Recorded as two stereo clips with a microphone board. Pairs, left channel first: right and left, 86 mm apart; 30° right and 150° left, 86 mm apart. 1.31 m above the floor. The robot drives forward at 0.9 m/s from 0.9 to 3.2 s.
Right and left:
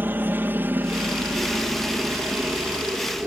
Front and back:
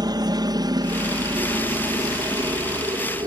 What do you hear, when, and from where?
0.0 s a helicopter: 150° left; by 3.3 s 155° left